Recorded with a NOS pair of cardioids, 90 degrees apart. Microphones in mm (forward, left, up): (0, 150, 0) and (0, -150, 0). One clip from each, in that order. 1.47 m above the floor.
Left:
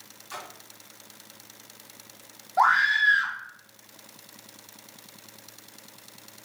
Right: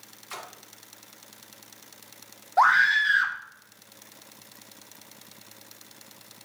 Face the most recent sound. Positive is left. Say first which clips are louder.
# right 1 dB
turn(degrees=-30)